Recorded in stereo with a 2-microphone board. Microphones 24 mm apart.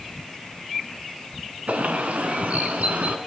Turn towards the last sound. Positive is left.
turn(degrees=-75)  # may be behind; listen again after turning